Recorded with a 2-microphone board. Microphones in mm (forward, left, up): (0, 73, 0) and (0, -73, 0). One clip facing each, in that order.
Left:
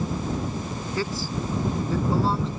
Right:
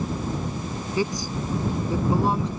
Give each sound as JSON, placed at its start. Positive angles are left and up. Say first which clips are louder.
{"t": 1.0, "sound": "a man speaking", "louder": "right 3 dB", "side_deg": -15}